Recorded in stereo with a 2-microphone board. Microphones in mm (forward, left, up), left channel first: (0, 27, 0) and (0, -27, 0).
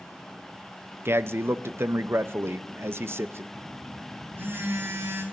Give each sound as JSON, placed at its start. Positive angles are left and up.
{"t": 1.1, "sound": "a man speaking", "side_deg": -55, "distance_m": 0.5}
{"t": 3.5, "sound": "a phone buzzing", "side_deg": -50, "distance_m": 4.5}